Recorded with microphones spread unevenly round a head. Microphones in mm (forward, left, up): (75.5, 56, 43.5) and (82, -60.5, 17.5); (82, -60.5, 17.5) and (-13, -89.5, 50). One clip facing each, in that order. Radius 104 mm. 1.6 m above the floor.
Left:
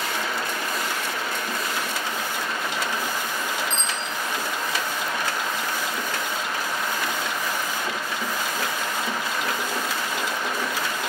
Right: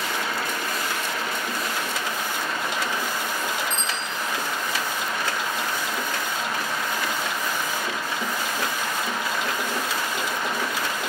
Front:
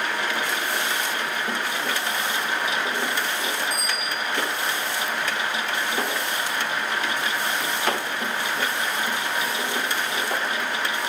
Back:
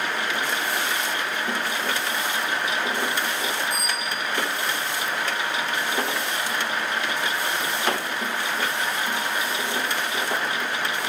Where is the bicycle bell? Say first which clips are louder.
Even, even; 100° left, 3.5 m.